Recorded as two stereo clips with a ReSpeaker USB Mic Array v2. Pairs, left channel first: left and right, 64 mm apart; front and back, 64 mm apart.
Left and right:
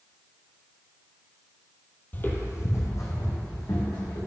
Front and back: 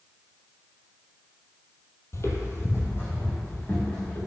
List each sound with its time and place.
2.1 s footsteps: 35° left, 1.1 m; by 4.2 s 60° left, 4 m